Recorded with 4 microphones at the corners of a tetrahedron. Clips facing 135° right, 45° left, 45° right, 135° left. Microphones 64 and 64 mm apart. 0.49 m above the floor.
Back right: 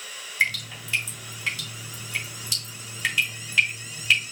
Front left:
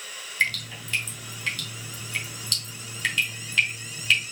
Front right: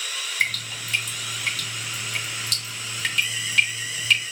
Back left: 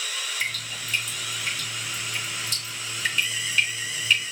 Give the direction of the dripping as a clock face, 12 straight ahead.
2 o'clock.